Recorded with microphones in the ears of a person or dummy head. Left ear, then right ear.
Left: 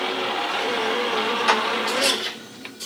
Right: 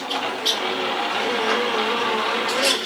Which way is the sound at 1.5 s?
85° left.